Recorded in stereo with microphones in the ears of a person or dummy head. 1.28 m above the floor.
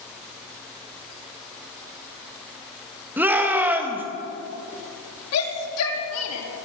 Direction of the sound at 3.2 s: 10° right (ahead or behind).